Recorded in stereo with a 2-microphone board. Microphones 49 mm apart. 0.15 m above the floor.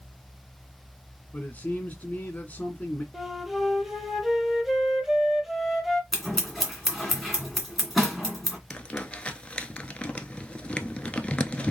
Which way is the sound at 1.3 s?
35° left (ahead or behind).